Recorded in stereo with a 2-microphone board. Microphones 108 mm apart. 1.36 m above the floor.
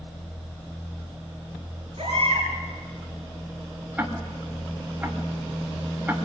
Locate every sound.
2.0 s a baby crying: 55° right (ahead or behind), 7.5 m
4.0 s ticking: 15° right (ahead or behind), 2.5 m